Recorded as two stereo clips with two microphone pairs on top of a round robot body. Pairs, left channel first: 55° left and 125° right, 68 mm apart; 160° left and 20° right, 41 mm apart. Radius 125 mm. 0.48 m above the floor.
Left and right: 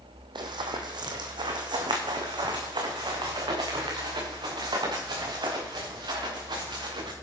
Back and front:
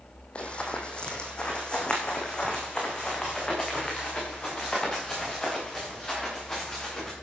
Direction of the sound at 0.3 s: 140° right.